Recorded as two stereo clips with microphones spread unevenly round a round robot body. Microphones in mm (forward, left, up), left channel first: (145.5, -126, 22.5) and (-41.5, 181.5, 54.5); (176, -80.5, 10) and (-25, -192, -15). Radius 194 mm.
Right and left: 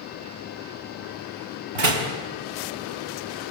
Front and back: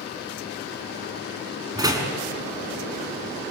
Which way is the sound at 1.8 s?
130° left.